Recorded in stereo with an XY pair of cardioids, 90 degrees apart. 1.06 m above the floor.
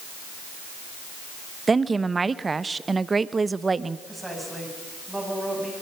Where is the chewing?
No chewing in this recording.